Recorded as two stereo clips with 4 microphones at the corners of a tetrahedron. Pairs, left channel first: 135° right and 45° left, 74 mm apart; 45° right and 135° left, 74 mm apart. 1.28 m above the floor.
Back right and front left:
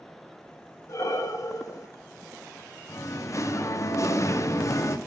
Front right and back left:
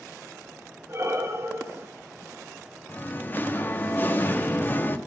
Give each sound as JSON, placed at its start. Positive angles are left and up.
{"t": 0.9, "sound": "breathing", "azimuth_deg": -175, "distance_m": 1.6}
{"t": 2.9, "sound": "singing", "azimuth_deg": -100, "distance_m": 0.9}